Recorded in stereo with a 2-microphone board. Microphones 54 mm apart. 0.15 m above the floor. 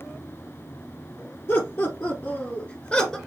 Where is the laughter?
55° left (ahead or behind), 3 m; by 3.2 s 15° left (ahead or behind), 1.8 m.